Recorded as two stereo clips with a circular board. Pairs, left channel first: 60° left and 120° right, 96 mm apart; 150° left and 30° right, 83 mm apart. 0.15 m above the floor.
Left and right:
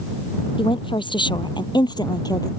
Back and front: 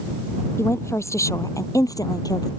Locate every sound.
0.6 s a woman speaking: 90° left; by 2.5 s 110° left